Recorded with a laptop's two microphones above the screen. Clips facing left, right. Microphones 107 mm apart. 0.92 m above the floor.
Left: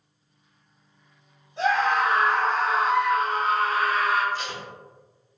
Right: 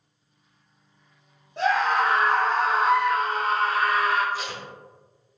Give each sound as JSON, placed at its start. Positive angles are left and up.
{"t": 1.6, "sound": "a scream", "side_deg": -70, "distance_m": 1.5}
{"t": 4.3, "sound": "tape being pulled", "side_deg": -5, "distance_m": 0.7}